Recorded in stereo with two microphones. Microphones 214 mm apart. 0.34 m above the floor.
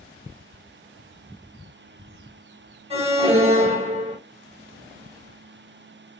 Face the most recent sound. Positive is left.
turn(degrees=-30)  # may be behind; listen again after turning